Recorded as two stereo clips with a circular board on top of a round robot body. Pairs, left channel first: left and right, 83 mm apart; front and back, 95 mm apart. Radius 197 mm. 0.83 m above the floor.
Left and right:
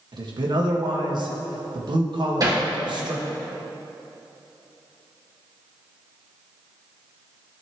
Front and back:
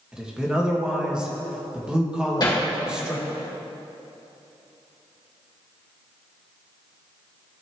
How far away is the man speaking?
About 1.9 m.